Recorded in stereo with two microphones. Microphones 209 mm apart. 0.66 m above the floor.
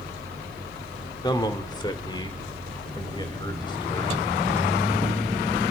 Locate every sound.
1.2 s a man speaking: 20° left (ahead or behind), 1.5 m